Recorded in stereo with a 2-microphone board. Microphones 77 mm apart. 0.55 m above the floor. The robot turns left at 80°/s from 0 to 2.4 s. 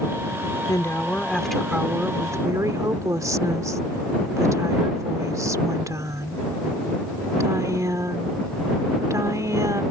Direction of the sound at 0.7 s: 70° left.